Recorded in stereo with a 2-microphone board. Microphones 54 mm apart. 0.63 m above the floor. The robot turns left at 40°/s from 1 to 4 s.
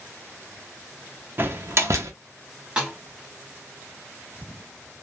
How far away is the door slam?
About 0.5 m.